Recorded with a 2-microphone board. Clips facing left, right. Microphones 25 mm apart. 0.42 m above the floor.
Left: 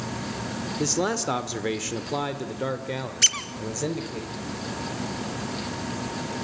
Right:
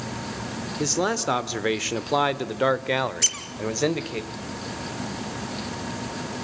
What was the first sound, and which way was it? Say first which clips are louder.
A man speaking: right 1 dB; 5° right (ahead or behind).